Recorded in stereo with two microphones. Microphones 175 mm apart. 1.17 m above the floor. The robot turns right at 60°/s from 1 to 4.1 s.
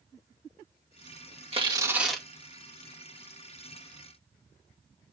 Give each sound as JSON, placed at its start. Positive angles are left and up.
{"t": 1.5, "sound": "tearing paper", "azimuth_deg": -35, "distance_m": 2.0}